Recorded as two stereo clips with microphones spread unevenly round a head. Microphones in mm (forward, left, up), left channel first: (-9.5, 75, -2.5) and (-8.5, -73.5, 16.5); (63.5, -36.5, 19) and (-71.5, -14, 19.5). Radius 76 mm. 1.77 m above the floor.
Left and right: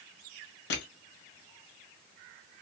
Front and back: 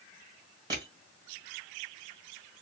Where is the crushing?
105° left, 1.6 m.